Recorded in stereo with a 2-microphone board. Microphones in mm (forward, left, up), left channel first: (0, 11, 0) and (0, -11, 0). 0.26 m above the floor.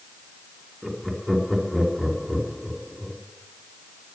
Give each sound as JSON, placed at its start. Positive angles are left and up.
{"t": 0.8, "sound": "laughter", "side_deg": -10, "distance_m": 4.0}